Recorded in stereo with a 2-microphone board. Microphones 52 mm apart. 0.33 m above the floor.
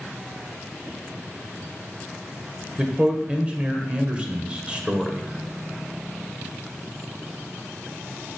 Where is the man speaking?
20° right (ahead or behind), 1.4 m.